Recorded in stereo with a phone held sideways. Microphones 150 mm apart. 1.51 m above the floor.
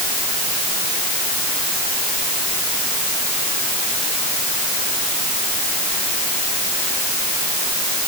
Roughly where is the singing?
I don't hear singing.